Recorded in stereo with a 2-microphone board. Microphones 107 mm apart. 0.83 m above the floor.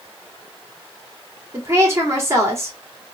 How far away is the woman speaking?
About 1.9 m.